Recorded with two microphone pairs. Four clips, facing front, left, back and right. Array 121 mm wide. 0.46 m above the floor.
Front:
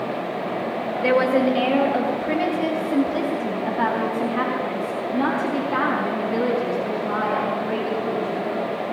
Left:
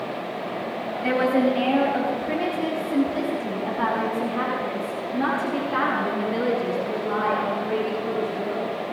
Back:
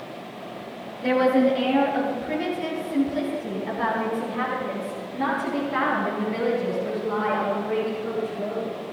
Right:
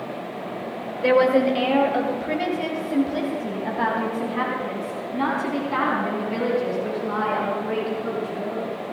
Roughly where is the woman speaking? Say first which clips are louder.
Right 4 dB, front 1 dB; ahead right.